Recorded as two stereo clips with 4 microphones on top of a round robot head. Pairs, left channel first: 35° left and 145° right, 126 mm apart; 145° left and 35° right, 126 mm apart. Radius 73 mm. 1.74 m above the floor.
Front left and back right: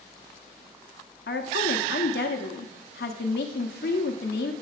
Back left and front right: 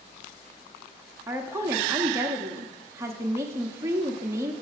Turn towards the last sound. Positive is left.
turn(degrees=35)